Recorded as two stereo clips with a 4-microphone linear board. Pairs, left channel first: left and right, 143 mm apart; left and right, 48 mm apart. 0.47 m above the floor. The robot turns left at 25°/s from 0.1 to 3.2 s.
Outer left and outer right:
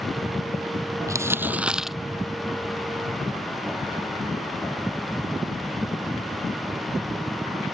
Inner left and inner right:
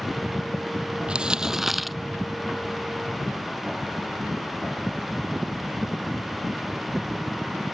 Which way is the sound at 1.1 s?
20° right (ahead or behind).